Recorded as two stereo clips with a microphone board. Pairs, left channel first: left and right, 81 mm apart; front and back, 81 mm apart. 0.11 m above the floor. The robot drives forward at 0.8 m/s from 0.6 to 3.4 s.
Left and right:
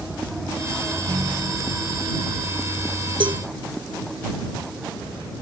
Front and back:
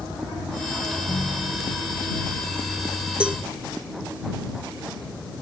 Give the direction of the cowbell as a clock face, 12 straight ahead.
3 o'clock.